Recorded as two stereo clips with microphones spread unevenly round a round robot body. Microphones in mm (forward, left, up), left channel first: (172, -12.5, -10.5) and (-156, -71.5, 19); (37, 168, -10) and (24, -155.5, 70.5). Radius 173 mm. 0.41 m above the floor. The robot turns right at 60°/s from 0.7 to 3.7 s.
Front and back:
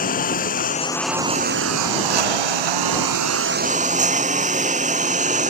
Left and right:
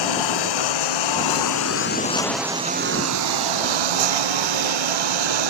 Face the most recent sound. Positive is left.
turn(degrees=-100)